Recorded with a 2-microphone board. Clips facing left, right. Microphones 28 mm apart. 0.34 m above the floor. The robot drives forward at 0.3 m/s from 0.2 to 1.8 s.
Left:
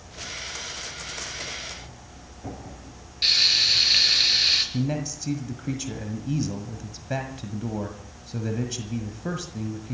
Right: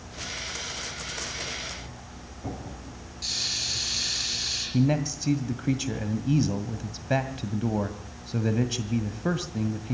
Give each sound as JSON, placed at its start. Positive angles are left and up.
{"t": 3.2, "sound": "frying", "side_deg": 55, "distance_m": 6.0}
{"t": 4.7, "sound": "a man speaking", "side_deg": -15, "distance_m": 1.6}